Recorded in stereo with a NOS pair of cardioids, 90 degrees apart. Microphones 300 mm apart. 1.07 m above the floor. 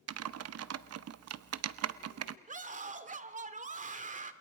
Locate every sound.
0.1 s typing on a keyboard: 55° right, 1.0 m
2.5 s a scream: 25° right, 2.5 m